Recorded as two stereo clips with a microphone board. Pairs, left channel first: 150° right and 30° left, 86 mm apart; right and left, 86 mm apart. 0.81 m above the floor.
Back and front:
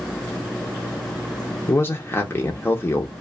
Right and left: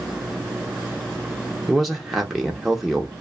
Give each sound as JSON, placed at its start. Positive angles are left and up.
{"t": 1.7, "sound": "a man speaking", "azimuth_deg": 180, "distance_m": 0.5}